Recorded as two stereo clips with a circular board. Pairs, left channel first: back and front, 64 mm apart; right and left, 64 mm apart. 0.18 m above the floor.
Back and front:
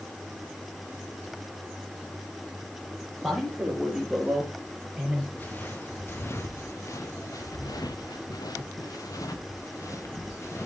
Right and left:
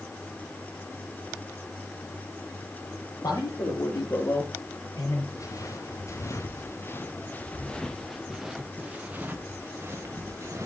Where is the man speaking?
85° right, 6 m; by 5.2 s 75° right, 4.5 m.